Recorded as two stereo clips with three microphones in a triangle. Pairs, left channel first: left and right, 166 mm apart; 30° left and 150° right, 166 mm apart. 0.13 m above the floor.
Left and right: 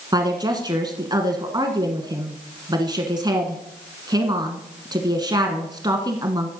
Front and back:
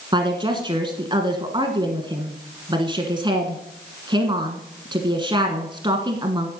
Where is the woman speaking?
125° right, 1.4 m.